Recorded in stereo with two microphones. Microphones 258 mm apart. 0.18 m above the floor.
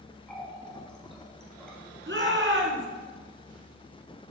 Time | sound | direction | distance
0.3 | a running tap | 5° left (ahead or behind) | 3 m
2.1 | a shout | 45° right (ahead or behind) | 2.5 m